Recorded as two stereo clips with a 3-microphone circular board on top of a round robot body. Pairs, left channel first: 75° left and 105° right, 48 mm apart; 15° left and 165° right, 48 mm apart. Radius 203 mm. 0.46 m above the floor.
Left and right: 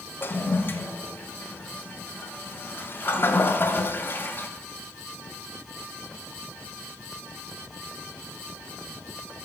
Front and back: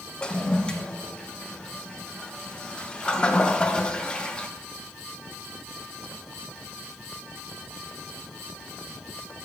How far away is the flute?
I don't hear a flute.